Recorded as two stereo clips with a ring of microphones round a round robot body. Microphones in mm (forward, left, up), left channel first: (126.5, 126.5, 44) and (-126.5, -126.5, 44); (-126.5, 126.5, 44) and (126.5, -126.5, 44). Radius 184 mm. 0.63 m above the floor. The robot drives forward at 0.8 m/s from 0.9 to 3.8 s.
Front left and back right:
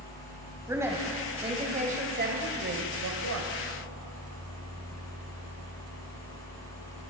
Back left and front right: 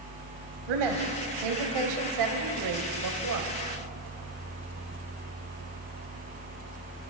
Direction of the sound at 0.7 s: 50° right.